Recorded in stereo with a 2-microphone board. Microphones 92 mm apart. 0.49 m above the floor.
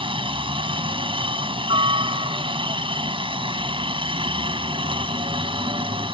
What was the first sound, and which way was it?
A helicopter, 65° right (ahead or behind).